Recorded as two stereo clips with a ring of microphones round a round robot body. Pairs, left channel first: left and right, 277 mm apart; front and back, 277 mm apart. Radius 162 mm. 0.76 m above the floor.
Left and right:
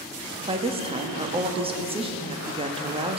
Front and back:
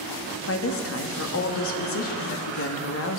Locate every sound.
0.5 s a woman speaking: 25° right, 1.5 m